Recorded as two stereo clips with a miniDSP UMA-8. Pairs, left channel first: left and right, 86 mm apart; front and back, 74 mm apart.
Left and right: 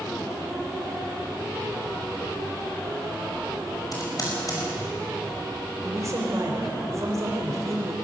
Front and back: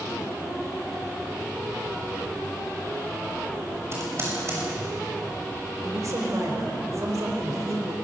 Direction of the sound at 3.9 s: 130° left.